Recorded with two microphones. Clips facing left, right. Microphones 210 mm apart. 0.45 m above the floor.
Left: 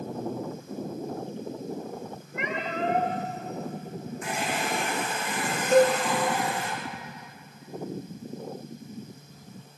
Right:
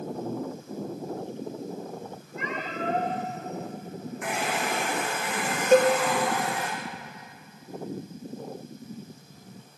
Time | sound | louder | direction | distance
2.3 | a cat meowing | left 2 dB | 75° left (ahead or behind) | 4.5 m
4.2 | a hair dryer | right 1 dB | 70° right (ahead or behind) | 4.5 m
5.7 | a cowbell | right 1 dB | 80° right | 0.8 m